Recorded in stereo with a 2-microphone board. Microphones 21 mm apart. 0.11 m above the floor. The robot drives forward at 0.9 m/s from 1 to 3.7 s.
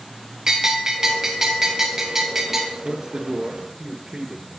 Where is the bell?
20° right (ahead or behind), 3 m; by 2.7 s 15° right (ahead or behind), 4.5 m.